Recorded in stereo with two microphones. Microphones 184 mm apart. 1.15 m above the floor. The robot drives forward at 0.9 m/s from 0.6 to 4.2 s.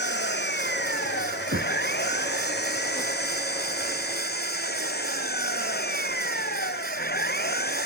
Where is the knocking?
80° right.